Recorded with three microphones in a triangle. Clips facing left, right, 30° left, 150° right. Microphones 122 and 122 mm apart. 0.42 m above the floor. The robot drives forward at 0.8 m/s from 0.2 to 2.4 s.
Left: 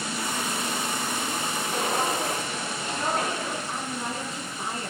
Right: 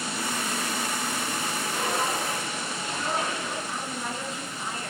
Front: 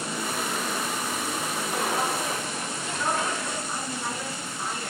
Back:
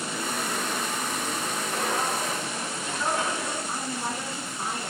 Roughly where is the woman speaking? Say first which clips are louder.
Left 1 dB, back 1 dB; behind left.